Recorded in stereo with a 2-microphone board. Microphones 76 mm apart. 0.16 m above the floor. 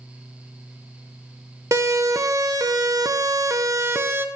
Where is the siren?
45° right (ahead or behind), 2.5 m; by 4.3 s 30° right (ahead or behind), 1.7 m.